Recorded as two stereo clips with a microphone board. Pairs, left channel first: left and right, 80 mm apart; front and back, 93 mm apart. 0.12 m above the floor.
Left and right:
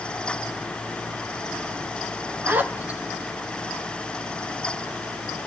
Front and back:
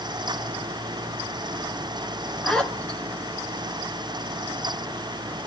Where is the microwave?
I don't hear a microwave.